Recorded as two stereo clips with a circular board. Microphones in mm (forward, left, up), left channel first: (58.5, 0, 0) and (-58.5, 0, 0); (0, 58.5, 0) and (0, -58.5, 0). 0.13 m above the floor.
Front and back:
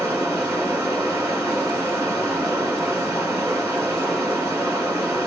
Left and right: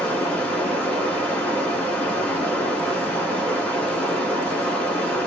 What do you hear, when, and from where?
0.0 s running water: 160° left, 1.4 m